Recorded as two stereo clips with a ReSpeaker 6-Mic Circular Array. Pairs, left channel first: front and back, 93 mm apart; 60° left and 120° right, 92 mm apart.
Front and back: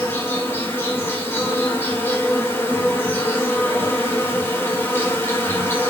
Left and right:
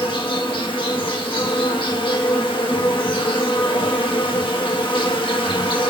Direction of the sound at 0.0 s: 65° left.